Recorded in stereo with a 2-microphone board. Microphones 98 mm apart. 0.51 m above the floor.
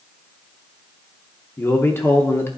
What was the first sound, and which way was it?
A man speaking, 25° left (ahead or behind).